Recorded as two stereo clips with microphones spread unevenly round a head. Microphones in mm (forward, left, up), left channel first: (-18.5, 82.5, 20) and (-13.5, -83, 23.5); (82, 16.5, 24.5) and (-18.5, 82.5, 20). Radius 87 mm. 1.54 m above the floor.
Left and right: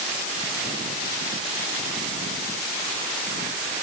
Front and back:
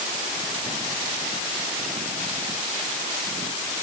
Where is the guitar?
No guitar in this recording.